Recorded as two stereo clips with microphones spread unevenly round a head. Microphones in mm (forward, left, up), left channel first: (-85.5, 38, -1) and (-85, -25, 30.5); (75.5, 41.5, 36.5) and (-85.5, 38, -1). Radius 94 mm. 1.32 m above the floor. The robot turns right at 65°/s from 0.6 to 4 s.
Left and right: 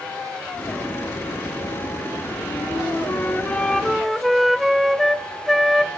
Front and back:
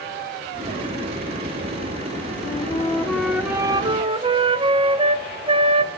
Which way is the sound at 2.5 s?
55° left.